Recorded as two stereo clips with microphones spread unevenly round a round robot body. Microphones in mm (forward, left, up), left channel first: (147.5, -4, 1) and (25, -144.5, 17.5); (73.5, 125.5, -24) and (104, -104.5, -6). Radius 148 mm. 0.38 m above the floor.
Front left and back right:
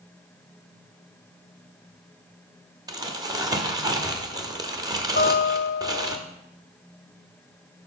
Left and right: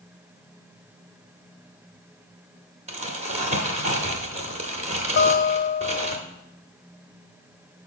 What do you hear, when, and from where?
2.9 s crumpling: 80° right, 1.0 m
5.2 s a guitar: 70° left, 0.6 m